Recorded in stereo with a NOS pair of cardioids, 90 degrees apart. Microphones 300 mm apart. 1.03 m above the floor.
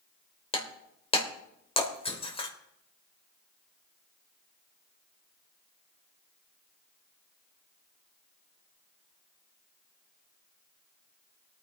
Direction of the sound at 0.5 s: 20° left.